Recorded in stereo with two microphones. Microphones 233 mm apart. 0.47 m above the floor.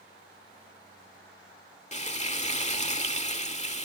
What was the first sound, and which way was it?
Frying, 30° left (ahead or behind).